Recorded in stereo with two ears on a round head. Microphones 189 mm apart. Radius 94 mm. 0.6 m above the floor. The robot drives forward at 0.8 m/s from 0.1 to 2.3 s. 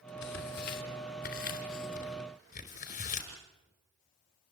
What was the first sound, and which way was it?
Tearing paper, 55° left (ahead or behind).